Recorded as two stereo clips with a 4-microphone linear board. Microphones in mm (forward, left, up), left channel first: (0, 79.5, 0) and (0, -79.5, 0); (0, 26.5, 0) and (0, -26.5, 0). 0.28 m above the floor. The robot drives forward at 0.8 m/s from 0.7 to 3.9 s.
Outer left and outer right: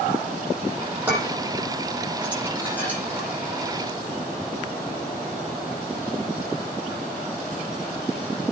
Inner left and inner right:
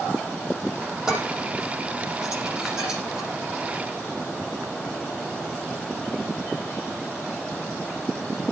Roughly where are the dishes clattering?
Centre.